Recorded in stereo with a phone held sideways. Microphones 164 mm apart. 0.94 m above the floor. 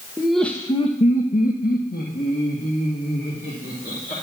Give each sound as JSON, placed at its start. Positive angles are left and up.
{"t": 0.2, "sound": "laughter", "side_deg": -10, "distance_m": 0.8}